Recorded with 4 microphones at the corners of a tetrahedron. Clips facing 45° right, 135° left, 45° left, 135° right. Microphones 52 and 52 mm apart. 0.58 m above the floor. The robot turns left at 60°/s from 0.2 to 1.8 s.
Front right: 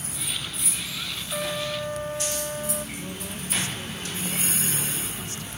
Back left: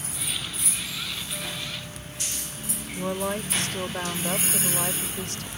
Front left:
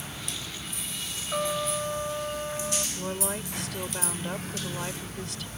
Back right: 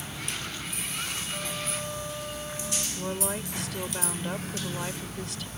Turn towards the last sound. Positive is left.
turn(degrees=135)